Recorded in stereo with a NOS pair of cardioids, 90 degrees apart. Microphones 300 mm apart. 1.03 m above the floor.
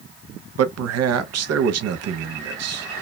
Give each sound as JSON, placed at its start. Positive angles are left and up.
{"t": 0.6, "sound": "a man speaking", "azimuth_deg": -60, "distance_m": 0.7}